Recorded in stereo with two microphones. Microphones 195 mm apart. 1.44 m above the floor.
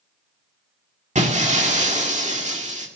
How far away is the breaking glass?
About 1.9 m.